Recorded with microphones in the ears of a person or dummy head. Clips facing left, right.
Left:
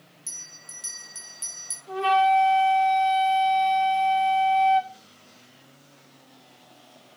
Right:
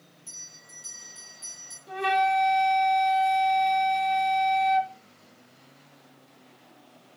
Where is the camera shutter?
I don't hear a camera shutter.